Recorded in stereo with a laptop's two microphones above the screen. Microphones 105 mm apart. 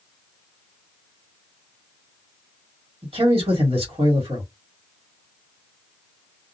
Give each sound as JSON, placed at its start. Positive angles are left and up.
{"t": 3.0, "sound": "a man speaking", "side_deg": -65, "distance_m": 1.7}